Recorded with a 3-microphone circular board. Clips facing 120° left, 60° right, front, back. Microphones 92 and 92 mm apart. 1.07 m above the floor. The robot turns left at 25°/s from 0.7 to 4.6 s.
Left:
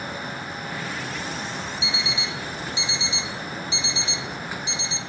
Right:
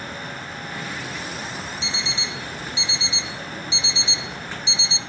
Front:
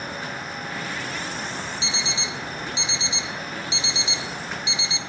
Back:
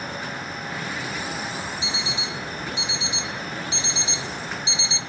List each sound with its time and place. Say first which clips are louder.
1.8 s an alarm clock: left 1 dB, even; 160° right, 0.9 m; by 5.0 s 130° left, 0.9 m